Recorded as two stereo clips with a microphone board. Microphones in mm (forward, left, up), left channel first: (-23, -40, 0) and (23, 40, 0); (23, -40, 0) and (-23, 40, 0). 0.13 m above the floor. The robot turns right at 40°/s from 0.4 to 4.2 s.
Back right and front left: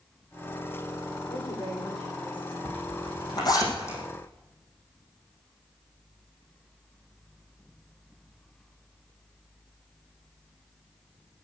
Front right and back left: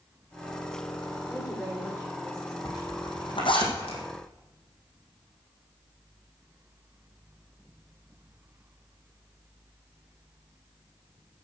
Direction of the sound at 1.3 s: 155° right.